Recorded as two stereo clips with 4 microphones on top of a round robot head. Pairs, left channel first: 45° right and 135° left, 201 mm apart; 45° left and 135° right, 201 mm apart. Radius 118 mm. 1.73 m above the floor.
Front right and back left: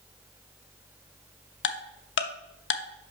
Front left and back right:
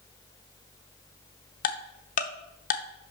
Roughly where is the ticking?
Ahead.